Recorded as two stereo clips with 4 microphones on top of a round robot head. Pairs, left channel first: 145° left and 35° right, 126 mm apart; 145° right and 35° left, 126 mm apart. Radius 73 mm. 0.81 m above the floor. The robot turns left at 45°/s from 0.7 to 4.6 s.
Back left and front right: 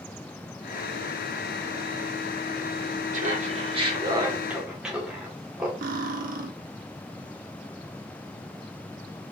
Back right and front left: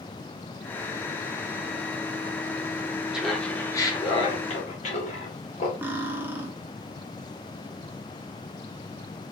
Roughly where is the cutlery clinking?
Ahead right.